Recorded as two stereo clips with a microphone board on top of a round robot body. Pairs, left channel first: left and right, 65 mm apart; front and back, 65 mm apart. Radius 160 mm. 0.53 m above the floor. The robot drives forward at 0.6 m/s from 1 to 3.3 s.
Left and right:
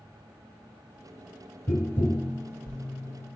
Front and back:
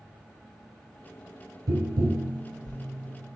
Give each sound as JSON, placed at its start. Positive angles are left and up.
{"t": 1.7, "sound": "tapping", "azimuth_deg": 150, "distance_m": 1.0}